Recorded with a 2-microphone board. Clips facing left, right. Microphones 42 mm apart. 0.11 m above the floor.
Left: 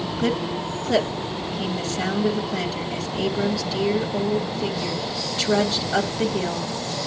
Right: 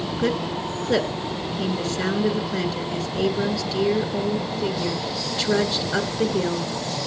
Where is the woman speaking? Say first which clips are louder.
Even; 5° right (ahead or behind), 1.4 m.